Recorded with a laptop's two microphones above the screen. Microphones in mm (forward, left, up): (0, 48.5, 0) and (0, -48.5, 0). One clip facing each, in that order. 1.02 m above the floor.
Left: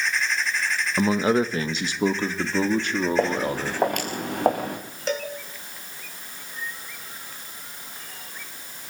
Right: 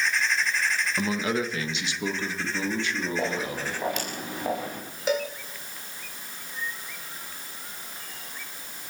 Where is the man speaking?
30° left (ahead or behind), 1.2 m; by 3.8 s 55° left (ahead or behind), 2.5 m.